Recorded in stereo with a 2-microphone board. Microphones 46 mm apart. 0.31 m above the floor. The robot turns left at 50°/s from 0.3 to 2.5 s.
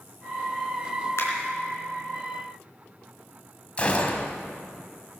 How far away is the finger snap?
About 3.5 m.